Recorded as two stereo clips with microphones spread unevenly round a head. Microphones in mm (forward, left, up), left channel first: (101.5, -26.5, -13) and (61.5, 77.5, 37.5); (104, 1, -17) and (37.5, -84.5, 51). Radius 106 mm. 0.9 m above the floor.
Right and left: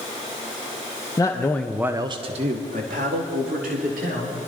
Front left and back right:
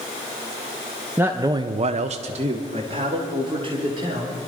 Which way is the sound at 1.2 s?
35° right.